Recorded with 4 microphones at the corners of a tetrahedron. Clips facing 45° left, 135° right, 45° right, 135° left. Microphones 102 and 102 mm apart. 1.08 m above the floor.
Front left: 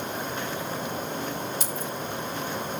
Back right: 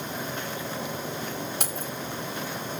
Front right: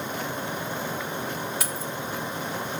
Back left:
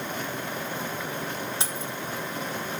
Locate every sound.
1.6 s keys jangling: 160° right, 2 m